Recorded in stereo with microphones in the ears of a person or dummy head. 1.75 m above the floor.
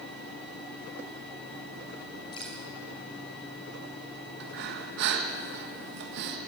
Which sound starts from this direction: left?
Dripping, at 2.3 s.